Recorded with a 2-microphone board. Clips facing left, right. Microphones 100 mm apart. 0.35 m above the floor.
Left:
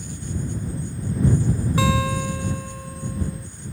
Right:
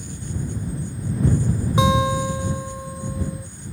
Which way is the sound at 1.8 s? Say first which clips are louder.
Right 5 dB; 20° right (ahead or behind).